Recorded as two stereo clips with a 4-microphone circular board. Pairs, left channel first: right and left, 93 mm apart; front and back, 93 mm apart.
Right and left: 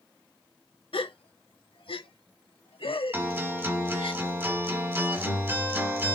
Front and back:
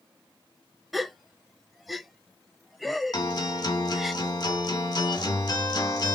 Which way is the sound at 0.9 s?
90° right.